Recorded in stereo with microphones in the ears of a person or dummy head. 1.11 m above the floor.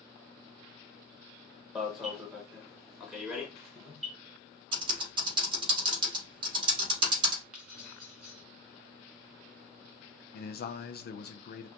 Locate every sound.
1.8 s an alarm: centre (ahead or behind), 0.8 m
4.7 s typing on a keyboard: 30° right (ahead or behind), 1.2 m
7.5 s keys jangling: 5° right (ahead or behind), 2.5 m
10.3 s a man speaking: 50° left (ahead or behind), 0.6 m